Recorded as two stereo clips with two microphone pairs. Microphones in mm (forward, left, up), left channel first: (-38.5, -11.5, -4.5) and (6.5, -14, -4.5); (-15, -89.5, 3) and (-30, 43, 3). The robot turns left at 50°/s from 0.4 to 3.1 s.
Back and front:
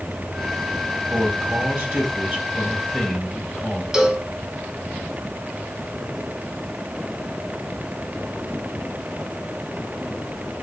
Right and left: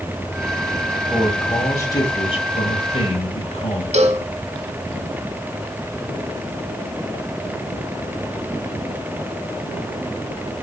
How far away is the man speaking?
About 1.9 m.